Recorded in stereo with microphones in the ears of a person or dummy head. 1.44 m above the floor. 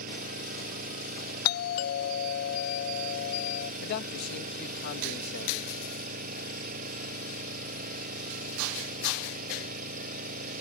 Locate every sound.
0.0 s an engine running: 50° right (ahead or behind)
1.4 s a doorbell: 55° left (ahead or behind)
3.8 s a man speaking: 60° left (ahead or behind)